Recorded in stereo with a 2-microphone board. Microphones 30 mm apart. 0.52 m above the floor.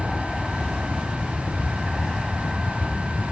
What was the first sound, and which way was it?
An aircraft, 15° left (ahead or behind).